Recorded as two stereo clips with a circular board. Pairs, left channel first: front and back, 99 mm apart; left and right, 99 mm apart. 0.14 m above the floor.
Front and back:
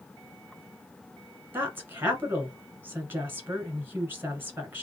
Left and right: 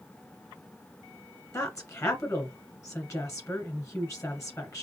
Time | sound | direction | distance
1.5 | a woman speaking | 125° left | 1.5 m